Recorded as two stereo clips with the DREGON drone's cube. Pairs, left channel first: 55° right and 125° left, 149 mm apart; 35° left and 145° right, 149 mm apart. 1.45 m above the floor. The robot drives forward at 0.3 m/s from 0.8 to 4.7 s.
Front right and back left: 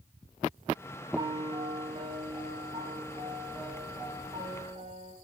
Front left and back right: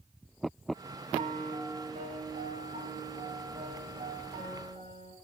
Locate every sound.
1.2 s a piano: straight behind, 0.6 m